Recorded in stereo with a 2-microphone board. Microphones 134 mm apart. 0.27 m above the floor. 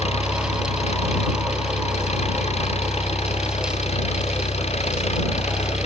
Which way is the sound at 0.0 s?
55° left (ahead or behind).